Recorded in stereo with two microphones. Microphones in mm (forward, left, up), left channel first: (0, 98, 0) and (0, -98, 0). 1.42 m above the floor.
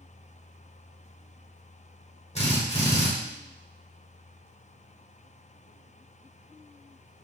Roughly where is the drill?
Left.